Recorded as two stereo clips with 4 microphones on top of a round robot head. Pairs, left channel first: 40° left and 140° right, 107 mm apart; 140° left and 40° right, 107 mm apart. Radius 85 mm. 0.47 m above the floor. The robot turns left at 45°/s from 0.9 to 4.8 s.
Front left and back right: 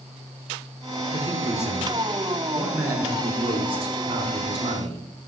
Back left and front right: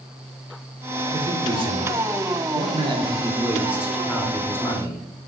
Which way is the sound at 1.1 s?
Straight ahead.